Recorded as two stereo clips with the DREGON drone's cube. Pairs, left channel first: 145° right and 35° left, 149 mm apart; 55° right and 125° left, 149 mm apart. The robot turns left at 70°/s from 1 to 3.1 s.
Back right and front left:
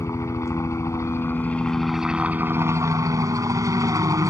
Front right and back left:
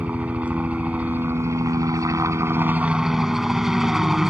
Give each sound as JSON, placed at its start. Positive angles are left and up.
{"t": 0.0, "sound": "a helicopter", "azimuth_deg": -170}